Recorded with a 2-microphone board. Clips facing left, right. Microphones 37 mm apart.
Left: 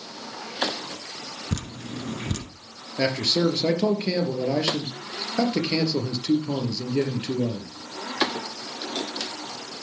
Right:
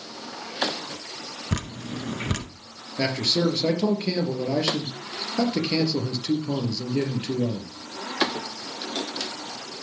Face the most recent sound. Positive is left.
turn(degrees=15)  # may be behind; listen again after turning